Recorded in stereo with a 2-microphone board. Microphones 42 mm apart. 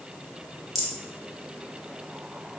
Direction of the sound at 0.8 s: Centre (ahead or behind).